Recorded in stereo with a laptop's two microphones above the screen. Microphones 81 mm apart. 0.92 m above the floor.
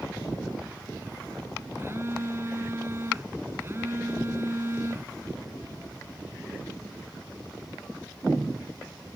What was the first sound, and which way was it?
A phone buzzing, 30° right (ahead or behind).